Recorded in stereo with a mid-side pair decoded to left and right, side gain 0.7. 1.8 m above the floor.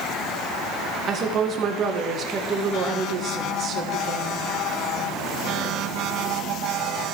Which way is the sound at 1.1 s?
40° right.